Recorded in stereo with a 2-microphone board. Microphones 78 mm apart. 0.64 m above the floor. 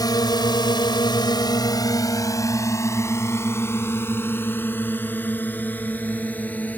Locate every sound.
0.0 s a drone: 55° left (ahead or behind); by 6.8 s 20° left (ahead or behind)